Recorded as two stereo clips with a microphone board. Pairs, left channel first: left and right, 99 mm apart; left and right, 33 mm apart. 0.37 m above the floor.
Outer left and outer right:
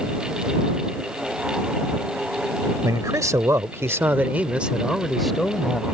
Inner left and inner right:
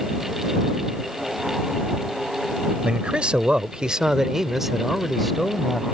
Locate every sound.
2.8 s a man speaking: 35° right (ahead or behind); by 5.8 s 10° left (ahead or behind)